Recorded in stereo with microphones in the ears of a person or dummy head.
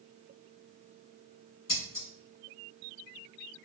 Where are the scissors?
35° left (ahead or behind), 1.8 m.